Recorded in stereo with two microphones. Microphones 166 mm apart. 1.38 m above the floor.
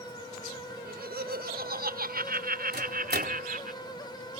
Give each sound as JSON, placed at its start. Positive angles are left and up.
{"t": 0.8, "sound": "laughter", "side_deg": -75}
{"t": 2.7, "sound": "a microwave", "side_deg": -75}